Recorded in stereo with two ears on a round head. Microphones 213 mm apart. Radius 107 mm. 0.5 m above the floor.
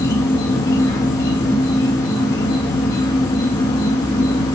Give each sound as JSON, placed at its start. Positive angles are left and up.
{"t": 0.0, "sound": "an insect", "side_deg": 15, "distance_m": 0.9}